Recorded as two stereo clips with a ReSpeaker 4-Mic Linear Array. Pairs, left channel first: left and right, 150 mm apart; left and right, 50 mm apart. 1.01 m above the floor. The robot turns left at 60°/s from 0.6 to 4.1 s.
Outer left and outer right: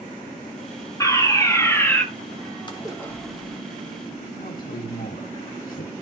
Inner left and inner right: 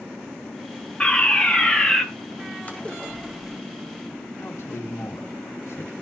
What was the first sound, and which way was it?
A fire alarm, 20° left (ahead or behind).